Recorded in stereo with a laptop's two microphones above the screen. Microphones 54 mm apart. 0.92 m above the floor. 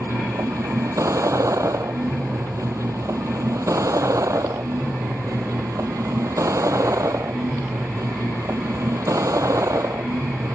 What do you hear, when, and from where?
0.0 s a vehicle: 75° right (ahead or behind)